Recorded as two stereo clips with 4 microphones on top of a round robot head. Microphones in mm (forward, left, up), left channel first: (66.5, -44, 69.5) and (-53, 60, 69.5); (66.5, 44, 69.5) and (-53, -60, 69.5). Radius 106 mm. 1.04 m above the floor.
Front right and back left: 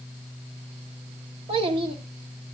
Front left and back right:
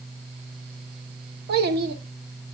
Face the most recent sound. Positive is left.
turn(degrees=-165)